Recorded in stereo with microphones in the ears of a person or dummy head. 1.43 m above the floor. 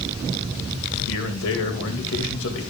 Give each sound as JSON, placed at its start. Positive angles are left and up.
{"t": 1.1, "sound": "a man speaking", "side_deg": 70, "distance_m": 2.0}